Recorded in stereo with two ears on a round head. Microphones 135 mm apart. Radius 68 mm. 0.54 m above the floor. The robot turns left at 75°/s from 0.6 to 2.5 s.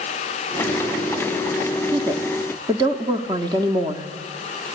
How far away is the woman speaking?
About 1.2 m.